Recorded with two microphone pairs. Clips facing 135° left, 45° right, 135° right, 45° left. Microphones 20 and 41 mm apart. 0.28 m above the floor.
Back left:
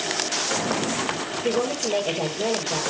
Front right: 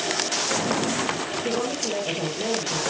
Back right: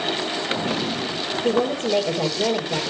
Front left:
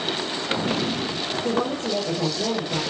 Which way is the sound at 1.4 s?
165° right.